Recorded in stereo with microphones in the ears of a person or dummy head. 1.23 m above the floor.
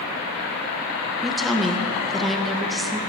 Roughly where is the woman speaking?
Centre.